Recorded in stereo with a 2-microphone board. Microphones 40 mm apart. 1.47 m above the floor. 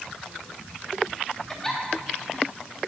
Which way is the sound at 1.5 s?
15° left (ahead or behind).